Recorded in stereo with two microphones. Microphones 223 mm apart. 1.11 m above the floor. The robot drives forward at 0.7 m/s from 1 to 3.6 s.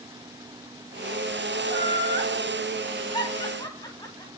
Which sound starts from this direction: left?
Laughter, at 1.6 s.